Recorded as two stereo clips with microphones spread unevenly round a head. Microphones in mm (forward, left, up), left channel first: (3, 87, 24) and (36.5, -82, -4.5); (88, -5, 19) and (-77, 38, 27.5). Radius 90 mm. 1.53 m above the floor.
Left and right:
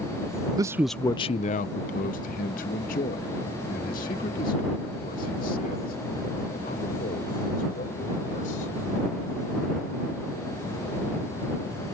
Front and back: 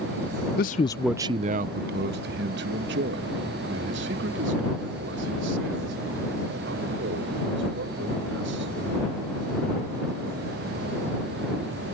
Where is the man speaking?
5° right; by 9.1 s 150° left.